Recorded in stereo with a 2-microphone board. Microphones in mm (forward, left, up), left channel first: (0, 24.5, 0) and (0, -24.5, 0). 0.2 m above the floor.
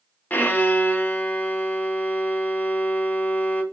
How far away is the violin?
About 0.6 m.